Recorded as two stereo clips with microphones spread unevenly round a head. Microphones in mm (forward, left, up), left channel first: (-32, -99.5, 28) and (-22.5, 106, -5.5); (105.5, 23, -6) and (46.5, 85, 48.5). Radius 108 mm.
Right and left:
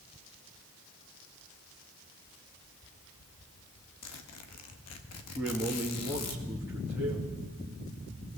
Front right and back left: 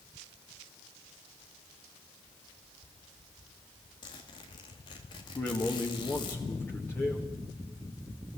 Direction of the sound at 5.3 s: 5° left.